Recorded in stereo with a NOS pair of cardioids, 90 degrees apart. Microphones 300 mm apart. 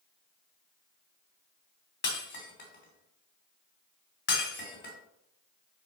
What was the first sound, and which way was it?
Breaking glass, 40° left.